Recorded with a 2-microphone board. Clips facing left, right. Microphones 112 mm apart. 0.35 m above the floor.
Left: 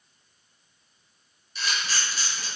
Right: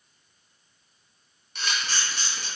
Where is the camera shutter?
70° right (ahead or behind), 3 m.